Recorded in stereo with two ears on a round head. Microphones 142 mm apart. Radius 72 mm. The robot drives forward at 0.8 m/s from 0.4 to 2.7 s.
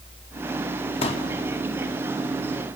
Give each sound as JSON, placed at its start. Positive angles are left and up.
{"t": 1.0, "sound": "a pop", "side_deg": 35, "distance_m": 1.7}